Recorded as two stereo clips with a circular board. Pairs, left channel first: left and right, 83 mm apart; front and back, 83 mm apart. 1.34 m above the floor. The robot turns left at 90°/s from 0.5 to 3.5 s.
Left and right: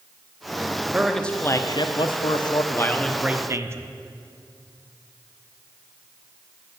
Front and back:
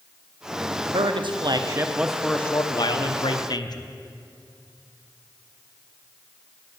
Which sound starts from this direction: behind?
A man speaking, at 0.9 s.